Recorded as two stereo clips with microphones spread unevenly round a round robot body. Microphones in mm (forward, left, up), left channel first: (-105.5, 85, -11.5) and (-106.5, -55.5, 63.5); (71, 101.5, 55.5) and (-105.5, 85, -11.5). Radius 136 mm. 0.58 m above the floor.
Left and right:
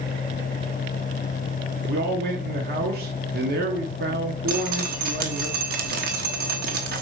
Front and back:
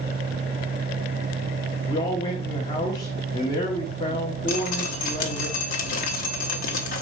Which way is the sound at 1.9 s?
80° right.